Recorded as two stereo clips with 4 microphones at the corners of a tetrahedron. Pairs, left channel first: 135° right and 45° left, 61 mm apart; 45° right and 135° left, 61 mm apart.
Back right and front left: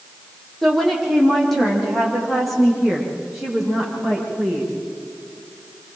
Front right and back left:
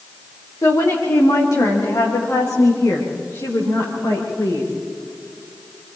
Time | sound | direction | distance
0.6 | a woman speaking | 50° right | 6 m